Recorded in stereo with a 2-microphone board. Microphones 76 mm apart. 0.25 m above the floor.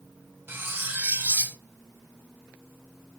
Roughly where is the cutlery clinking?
Right.